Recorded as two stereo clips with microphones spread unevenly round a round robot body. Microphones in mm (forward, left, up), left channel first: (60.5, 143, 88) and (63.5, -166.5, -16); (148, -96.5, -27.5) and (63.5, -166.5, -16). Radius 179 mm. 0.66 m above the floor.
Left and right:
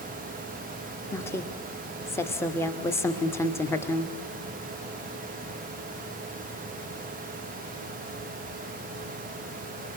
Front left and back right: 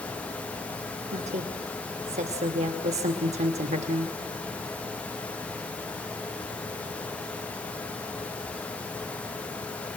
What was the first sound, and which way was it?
A woman speaking, 175° right.